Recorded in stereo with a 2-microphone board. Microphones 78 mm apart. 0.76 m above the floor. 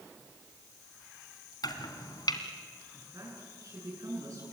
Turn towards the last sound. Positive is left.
turn(degrees=-50)  # may be behind; listen again after turning